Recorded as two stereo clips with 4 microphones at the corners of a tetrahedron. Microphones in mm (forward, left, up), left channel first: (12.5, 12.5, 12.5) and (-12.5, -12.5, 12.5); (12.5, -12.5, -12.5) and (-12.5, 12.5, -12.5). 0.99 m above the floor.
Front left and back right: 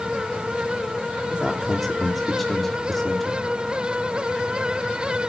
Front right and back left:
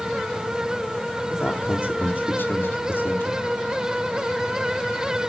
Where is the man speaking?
40° right, 2.5 m.